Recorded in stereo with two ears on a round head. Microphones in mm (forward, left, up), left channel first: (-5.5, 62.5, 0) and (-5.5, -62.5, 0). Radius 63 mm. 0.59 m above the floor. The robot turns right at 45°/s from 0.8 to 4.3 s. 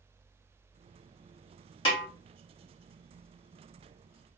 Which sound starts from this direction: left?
A snare drum, at 1.9 s.